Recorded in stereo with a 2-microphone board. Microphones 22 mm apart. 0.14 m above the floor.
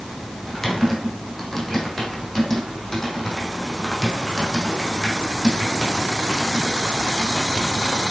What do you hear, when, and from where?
0.5 s typing on a keyboard: 15° left (ahead or behind), 4 m